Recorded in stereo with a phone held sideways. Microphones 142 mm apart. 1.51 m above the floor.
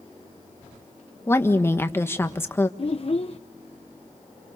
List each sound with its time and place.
1.3 s a woman speaking: 15° left (ahead or behind), 1.5 m
2.8 s a child speaking: 45° left (ahead or behind), 0.6 m